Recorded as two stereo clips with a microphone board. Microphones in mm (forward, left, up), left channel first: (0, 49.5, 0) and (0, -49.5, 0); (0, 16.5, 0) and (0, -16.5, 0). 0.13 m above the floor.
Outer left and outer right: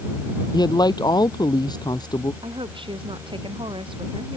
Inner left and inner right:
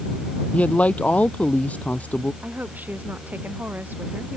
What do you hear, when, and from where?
0.5 s a man speaking: 45° left (ahead or behind)
2.4 s a woman speaking: 60° right (ahead or behind)